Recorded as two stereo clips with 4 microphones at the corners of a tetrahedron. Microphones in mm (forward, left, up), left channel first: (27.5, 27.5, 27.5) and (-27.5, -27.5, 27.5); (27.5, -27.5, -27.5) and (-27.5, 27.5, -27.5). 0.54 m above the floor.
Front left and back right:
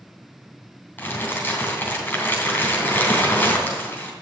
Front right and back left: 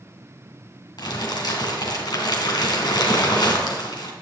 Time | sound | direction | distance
1.0 | crumpling | 20° right | 2.5 m